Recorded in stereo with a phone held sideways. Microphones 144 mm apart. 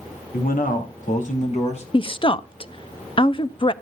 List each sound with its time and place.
0.3 s a man speaking: 80° left, 2.5 m; by 1.8 s 50° left (ahead or behind), 3 m
1.9 s a woman speaking: 35° left (ahead or behind), 0.6 m